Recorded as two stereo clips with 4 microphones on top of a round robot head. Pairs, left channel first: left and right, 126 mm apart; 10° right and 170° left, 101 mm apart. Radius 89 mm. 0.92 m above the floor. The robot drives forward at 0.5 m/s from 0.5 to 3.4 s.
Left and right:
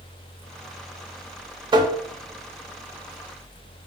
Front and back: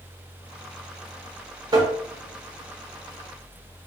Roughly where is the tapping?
Behind right.